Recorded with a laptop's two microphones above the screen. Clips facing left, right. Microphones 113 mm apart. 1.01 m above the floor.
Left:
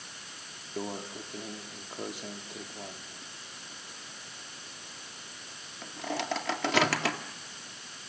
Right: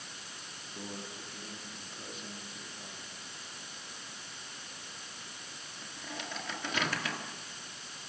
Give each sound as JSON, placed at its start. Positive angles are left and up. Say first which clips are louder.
{"t": 0.8, "sound": "a microwave", "louder": "left 8 dB", "side_deg": 80, "distance_m": 1.5}